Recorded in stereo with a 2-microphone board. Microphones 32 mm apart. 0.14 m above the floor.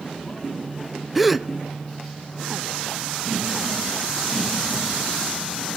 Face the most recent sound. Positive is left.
turn(degrees=-5)  # may be behind; listen again after turning